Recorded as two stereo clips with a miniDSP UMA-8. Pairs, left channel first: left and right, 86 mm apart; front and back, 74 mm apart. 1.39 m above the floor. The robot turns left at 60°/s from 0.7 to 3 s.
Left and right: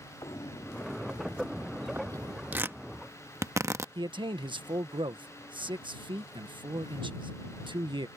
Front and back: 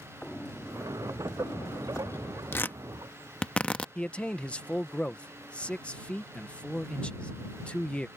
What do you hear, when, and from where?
0.2 s footsteps: 70° left; by 2.4 s 75° right
2.5 s tearing paper: 35° right; by 3.9 s 65° right
4.0 s a man speaking: 75° right